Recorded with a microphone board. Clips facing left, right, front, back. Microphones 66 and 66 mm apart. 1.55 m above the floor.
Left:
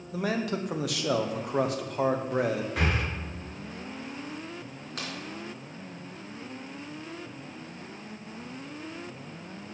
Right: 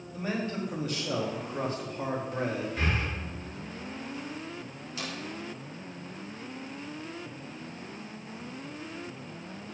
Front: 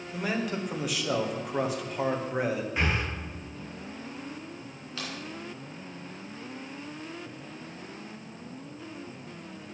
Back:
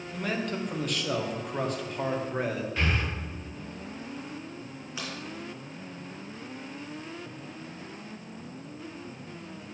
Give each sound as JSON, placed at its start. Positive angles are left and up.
{"t": 0.1, "sound": "a man speaking", "azimuth_deg": 85, "distance_m": 1.0}
{"t": 2.8, "sound": "breathing", "azimuth_deg": 70, "distance_m": 1.0}
{"t": 5.0, "sound": "a crack", "azimuth_deg": 110, "distance_m": 2.5}